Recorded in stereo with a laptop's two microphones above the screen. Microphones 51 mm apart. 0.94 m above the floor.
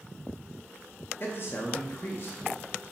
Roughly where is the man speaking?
Left.